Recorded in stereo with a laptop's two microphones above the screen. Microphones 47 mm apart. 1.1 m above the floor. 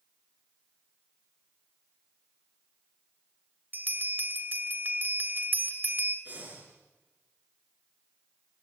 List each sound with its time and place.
3.7 s a bell: 45° right (ahead or behind), 2.5 m
6.2 s breathing: 35° right (ahead or behind), 5.5 m